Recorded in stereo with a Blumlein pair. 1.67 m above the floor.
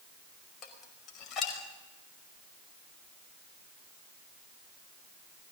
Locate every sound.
0.6 s dishes clattering: 30° left, 5 m